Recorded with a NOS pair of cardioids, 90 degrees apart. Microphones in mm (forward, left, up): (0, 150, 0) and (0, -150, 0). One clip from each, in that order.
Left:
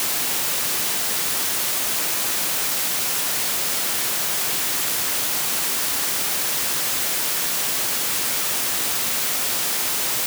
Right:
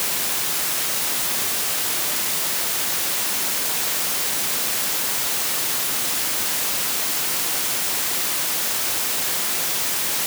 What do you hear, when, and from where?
Only background noise.